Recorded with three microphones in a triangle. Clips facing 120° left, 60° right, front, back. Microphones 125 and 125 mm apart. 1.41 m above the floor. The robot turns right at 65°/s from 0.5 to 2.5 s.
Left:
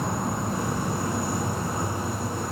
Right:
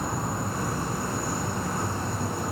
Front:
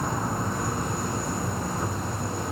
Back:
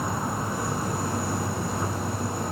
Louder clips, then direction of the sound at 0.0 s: Left 2 dB, even; 100° left.